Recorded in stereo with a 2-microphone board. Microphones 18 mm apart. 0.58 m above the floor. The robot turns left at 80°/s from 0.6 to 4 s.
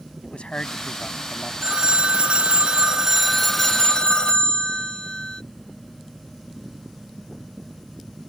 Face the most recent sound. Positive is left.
turn(degrees=135)